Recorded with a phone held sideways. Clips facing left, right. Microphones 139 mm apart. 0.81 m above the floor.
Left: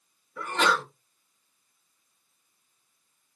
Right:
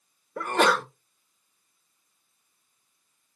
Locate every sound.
0.4 s a sneeze: 55° right (ahead or behind), 0.7 m